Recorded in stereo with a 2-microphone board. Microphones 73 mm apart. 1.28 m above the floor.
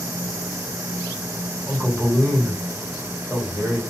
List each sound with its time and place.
1.7 s a man speaking: 15° right (ahead or behind), 1.6 m